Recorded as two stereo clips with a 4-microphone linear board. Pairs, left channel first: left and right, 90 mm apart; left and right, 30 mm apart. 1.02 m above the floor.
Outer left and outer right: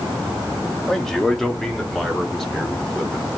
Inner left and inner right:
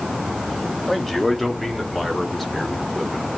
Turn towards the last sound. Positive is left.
turn(degrees=5)  # may be behind; listen again after turning